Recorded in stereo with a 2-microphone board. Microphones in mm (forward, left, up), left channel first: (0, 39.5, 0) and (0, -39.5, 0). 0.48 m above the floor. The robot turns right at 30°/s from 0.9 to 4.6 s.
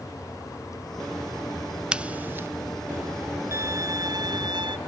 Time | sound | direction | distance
1.9 | scissors | 10° right (ahead or behind) | ?
3.5 | a violin | 145° right | ?